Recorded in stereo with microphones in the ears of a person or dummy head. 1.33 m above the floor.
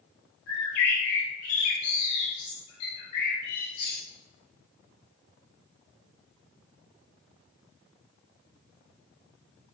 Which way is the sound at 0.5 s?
40° left (ahead or behind).